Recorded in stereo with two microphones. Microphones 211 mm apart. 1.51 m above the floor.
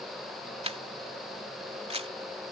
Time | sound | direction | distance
0.6 | a camera shutter | 30° right (ahead or behind) | ?